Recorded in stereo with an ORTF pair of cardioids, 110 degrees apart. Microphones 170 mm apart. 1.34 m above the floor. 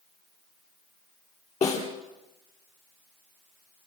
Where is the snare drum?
40° left, 8.5 m.